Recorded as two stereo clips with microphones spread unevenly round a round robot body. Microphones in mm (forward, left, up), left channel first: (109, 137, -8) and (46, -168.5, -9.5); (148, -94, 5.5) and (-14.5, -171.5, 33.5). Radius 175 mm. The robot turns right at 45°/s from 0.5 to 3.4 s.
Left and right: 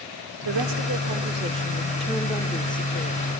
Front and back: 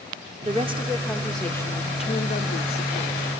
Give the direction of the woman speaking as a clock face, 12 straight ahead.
3 o'clock.